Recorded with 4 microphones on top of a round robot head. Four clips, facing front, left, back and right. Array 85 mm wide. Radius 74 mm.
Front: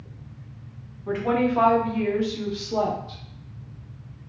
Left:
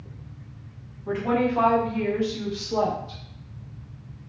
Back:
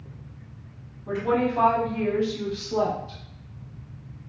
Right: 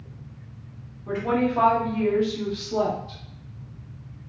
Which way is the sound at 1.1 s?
10° left.